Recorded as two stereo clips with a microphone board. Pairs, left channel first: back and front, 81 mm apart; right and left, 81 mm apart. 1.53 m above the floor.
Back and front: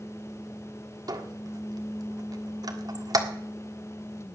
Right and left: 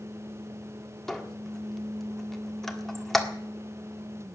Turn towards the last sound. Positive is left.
turn(degrees=-5)